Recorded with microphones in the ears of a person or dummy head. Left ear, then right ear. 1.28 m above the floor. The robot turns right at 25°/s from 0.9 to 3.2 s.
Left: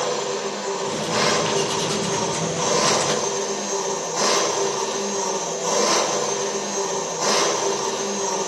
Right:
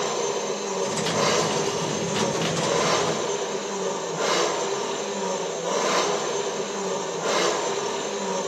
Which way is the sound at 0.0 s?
25° left.